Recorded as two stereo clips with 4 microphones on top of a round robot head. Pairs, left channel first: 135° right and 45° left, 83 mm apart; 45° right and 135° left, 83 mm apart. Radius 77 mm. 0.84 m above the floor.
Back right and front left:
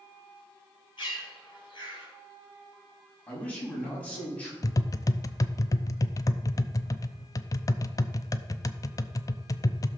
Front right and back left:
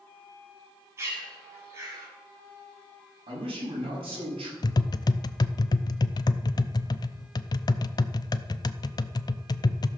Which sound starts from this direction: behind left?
A man speaking, at 3.3 s.